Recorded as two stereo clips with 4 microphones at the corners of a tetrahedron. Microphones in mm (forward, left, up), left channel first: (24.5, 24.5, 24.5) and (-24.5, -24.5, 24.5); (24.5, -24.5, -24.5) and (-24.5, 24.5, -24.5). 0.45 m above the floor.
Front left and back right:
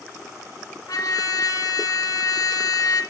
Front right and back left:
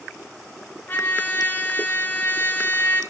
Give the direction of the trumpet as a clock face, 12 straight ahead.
12 o'clock.